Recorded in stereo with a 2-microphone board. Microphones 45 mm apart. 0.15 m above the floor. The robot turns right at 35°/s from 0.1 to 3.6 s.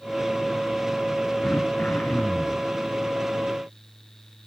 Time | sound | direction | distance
1.4 | throat clearing | 110° left | 0.9 m